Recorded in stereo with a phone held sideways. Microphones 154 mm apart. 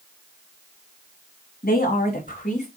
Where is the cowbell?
No cowbell in this recording.